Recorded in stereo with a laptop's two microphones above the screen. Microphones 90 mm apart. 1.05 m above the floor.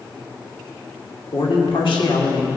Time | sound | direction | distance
1.3 | a man speaking | 85° left | 2.5 m